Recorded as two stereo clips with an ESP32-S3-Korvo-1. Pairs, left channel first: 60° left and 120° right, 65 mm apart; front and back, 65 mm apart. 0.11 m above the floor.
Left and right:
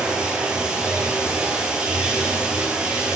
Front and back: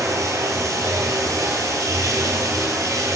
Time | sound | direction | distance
0.0 | running water | 165° left | 0.8 m